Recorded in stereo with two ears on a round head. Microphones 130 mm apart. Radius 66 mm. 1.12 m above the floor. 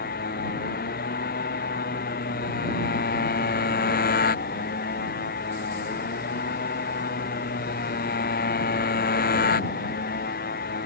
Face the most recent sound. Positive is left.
turn(degrees=60)  # may be behind; listen again after turning